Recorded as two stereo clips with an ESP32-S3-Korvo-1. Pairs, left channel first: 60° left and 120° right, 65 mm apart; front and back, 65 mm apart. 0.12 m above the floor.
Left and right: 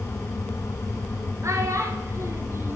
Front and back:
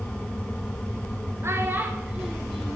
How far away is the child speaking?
About 1.1 m.